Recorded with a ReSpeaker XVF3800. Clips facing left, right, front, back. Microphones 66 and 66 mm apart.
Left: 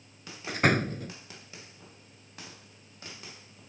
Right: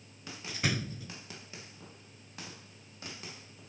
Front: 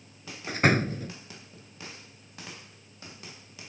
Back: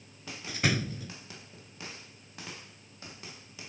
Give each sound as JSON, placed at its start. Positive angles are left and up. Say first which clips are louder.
{"t": 0.5, "sound": "a door slam", "louder": "left 9 dB, front 7 dB", "azimuth_deg": 45}